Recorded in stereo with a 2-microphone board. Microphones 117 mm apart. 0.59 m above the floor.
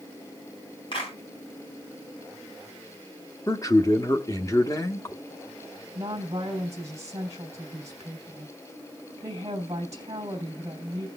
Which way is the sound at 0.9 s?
45° left (ahead or behind).